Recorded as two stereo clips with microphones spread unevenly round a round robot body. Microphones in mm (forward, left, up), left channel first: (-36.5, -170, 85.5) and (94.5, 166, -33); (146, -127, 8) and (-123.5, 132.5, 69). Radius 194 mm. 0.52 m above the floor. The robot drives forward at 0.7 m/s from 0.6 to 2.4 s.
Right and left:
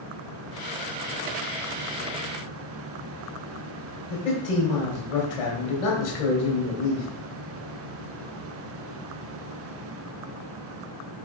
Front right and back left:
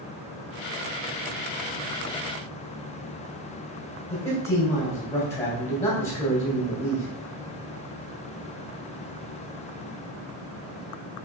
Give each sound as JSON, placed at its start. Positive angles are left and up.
{"t": 4.1, "sound": "a man speaking", "azimuth_deg": -125, "distance_m": 3.0}